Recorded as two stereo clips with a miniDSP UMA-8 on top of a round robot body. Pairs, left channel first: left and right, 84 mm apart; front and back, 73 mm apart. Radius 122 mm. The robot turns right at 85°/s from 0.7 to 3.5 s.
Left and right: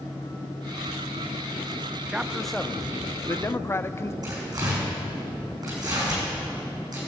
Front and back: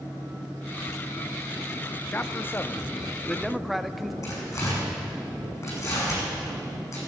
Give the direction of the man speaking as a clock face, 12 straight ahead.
1 o'clock.